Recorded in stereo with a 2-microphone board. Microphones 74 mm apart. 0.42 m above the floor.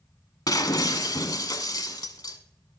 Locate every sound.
0.5 s breaking glass: 60° left (ahead or behind), 1.0 m